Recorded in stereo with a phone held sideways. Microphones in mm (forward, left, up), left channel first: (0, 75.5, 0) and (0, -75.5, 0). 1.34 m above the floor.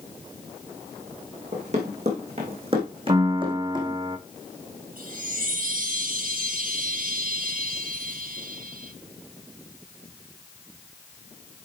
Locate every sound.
1.5 s running footsteps: 50° right (ahead or behind), 3.5 m; by 4.0 s 30° right (ahead or behind), 3 m
3.1 s a piano: 30° right (ahead or behind), 0.7 m
5.0 s a chime: 70° right (ahead or behind), 1.4 m